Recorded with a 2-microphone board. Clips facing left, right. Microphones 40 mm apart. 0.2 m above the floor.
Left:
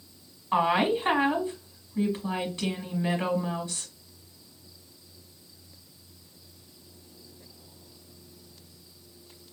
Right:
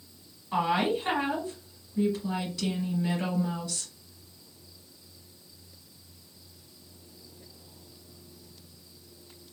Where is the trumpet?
No trumpet in this recording.